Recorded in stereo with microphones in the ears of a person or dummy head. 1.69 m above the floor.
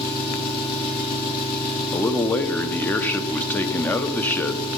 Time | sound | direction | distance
0.0 | an engine running | 55° left (ahead or behind) | 3 m
1.9 | a man speaking | 10° left (ahead or behind) | 1.0 m